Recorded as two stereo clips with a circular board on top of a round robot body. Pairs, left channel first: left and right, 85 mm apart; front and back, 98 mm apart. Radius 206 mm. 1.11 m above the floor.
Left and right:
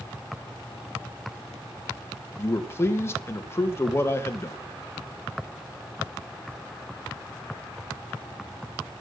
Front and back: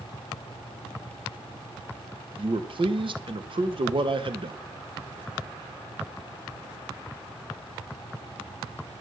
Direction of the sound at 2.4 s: 150° left.